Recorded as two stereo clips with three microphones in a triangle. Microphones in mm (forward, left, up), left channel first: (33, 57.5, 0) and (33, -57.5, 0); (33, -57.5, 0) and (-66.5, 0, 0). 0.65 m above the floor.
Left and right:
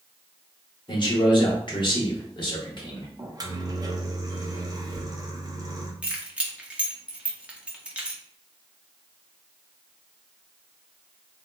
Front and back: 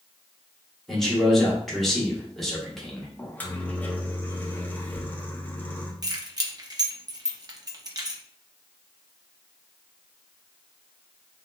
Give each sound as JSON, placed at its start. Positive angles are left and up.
{"t": 0.9, "sound": "a man speaking", "azimuth_deg": 60, "distance_m": 1.1}
{"t": 3.2, "sound": "a microwave", "azimuth_deg": -95, "distance_m": 0.6}
{"t": 6.0, "sound": "keys jangling", "azimuth_deg": -165, "distance_m": 0.6}